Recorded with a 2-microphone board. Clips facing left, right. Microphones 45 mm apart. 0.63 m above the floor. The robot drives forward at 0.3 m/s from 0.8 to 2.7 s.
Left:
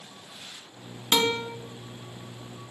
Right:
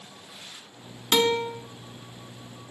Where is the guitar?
10° left (ahead or behind), 1.9 m.